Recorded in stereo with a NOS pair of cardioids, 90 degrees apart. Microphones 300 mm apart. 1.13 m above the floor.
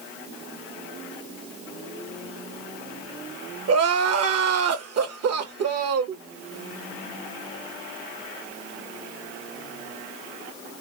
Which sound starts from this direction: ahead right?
Crying, at 3.7 s.